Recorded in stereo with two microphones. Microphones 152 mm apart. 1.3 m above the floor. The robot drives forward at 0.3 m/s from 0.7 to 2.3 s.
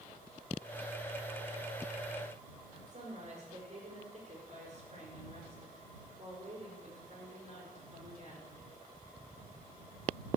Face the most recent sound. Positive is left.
turn(degrees=-50)  # may be behind; listen again after turning